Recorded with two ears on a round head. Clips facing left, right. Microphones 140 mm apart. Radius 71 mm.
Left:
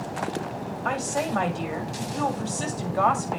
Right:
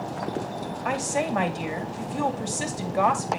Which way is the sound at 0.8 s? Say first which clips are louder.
Right 1 dB; 15° right (ahead or behind).